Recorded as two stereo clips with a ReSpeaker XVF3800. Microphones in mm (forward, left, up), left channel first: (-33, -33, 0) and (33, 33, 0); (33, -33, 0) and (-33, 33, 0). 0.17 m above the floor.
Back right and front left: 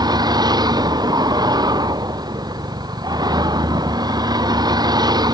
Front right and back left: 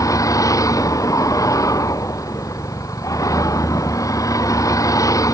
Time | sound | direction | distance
0.0 | a vehicle | 5° left | ?